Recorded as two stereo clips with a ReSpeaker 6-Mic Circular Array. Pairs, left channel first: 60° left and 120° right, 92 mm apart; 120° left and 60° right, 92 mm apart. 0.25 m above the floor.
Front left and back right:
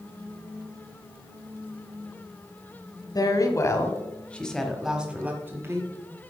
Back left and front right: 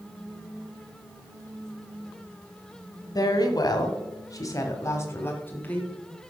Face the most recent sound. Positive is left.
turn(degrees=-170)